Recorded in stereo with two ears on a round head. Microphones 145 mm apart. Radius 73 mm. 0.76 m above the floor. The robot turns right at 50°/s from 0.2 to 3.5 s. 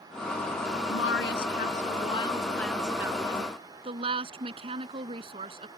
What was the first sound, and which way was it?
A woman speaking, 85° left.